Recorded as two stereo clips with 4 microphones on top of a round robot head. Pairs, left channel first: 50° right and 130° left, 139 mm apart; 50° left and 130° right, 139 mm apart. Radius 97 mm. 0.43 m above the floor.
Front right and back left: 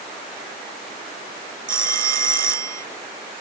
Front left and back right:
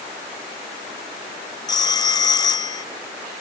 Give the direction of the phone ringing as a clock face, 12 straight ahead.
8 o'clock.